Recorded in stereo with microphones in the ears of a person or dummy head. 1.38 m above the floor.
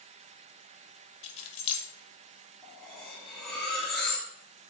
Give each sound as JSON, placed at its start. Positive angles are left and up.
{"t": 1.2, "sound": "keys jangling", "side_deg": 35, "distance_m": 0.6}
{"t": 2.6, "sound": "cutlery clinking", "side_deg": 0, "distance_m": 1.2}